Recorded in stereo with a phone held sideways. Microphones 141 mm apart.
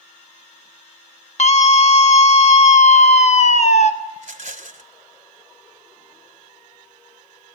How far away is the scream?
About 1.2 m.